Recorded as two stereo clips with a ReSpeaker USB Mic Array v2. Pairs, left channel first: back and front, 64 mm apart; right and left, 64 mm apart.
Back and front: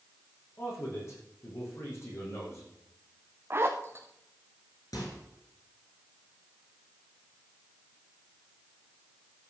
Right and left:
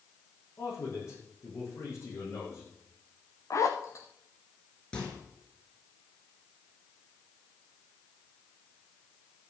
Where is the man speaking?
135° right, 6.5 m.